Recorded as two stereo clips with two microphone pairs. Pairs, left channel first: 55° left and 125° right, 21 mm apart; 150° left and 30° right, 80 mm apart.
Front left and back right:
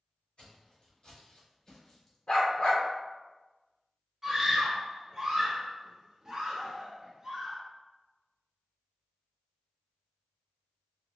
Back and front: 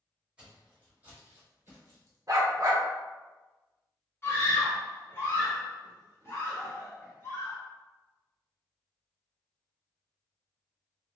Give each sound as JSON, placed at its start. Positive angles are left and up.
{"t": 0.4, "sound": "footsteps", "azimuth_deg": 45, "distance_m": 1.5}
{"t": 2.3, "sound": "a dog barking", "azimuth_deg": 15, "distance_m": 0.8}
{"t": 4.2, "sound": "a scream", "azimuth_deg": 170, "distance_m": 1.1}